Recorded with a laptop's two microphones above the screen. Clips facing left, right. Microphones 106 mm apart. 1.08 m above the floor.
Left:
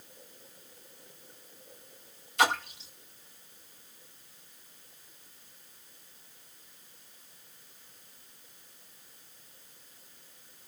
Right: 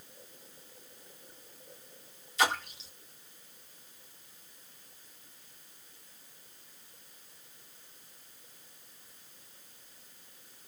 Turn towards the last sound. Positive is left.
turn(degrees=55)  # may be behind; listen again after turning